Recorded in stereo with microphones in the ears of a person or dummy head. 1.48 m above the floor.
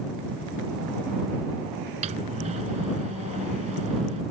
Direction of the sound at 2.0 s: 40° right (ahead or behind).